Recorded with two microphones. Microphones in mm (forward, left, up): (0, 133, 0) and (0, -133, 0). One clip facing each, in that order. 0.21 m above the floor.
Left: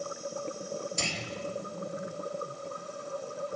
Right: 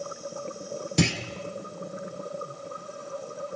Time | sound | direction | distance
1.0 | a clunk | 75° right (ahead or behind) | 2.5 m